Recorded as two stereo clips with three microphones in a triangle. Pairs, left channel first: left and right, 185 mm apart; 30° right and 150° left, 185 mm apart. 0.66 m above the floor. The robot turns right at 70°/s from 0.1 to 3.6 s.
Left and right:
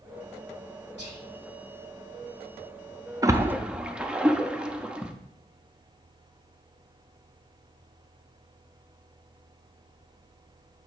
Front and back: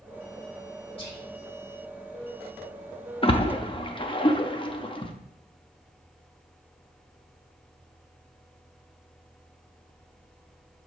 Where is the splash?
40° right, 0.6 m; by 5.1 s 10° right, 0.6 m.